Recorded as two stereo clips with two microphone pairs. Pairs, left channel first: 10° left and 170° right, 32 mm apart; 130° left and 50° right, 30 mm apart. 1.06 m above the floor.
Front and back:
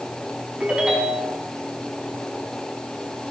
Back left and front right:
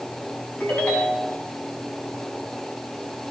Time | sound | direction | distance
0.6 | a ringtone | 140° left | 4 m